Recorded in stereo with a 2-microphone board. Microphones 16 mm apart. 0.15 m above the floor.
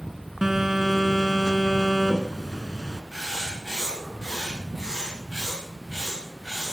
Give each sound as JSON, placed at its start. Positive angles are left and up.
{"t": 0.4, "sound": "a phone buzzing", "side_deg": -35, "distance_m": 1.7}
{"t": 3.1, "sound": "writing", "side_deg": 30, "distance_m": 7.0}